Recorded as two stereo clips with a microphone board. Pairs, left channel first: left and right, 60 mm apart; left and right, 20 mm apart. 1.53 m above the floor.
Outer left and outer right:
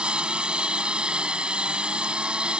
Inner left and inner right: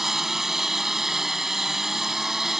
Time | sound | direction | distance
0.0 | a lawn mower | 15° right (ahead or behind) | ?